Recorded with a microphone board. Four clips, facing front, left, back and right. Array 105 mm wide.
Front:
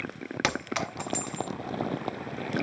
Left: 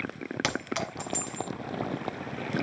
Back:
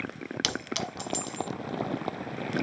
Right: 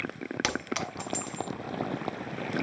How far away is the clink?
About 1.2 m.